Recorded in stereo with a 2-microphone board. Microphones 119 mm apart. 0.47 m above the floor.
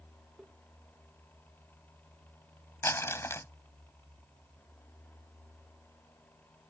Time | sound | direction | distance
0.4 | tapping | 5° right (ahead or behind) | ?
2.8 | crumpling | 25° left (ahead or behind) | ?